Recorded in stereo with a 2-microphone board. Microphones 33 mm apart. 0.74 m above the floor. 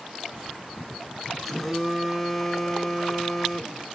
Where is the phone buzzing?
Centre (ahead or behind), 0.5 m.